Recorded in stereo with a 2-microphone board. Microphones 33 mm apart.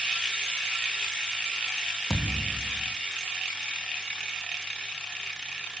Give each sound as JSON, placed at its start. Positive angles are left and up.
{"t": 2.1, "sound": "a thud", "side_deg": -5, "distance_m": 3.0}